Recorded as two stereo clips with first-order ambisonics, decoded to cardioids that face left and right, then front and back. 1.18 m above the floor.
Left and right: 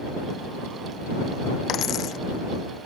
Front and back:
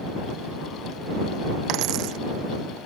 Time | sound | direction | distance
1.7 | a dropped coin | 145° left | ?